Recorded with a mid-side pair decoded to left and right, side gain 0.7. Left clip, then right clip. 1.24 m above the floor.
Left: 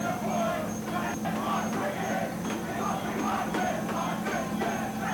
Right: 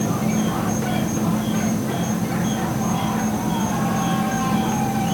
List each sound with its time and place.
0.0 s an insect: 50° right